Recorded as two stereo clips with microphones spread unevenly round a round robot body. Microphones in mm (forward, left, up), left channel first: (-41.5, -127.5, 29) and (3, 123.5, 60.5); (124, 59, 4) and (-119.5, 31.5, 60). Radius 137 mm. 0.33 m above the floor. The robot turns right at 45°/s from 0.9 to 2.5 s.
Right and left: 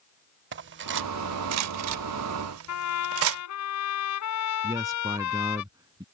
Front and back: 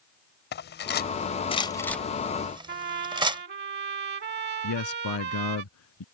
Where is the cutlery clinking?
35° left; by 3.4 s 110° left.